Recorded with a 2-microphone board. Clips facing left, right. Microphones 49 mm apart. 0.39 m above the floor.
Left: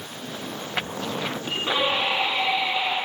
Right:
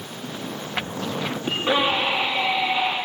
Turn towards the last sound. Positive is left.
turn(degrees=-20)  # may be behind; listen again after turning